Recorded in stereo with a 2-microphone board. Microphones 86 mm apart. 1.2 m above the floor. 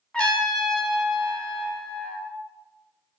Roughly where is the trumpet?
Centre.